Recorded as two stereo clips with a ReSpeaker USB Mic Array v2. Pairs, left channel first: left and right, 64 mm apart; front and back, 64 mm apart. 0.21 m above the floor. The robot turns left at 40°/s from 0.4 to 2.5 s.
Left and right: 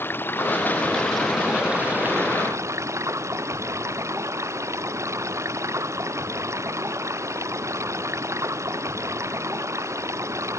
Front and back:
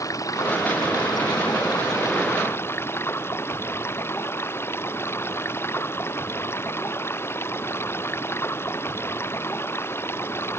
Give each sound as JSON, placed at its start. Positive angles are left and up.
{"t": 0.0, "sound": "running water", "azimuth_deg": 35}